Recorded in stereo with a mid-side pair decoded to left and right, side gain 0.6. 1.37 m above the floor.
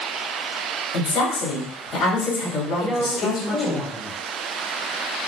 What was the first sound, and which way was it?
A woman speaking, 50° left.